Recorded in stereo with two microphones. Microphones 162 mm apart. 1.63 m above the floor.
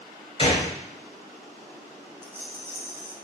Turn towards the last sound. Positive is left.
turn(degrees=-15)  # may be behind; listen again after turning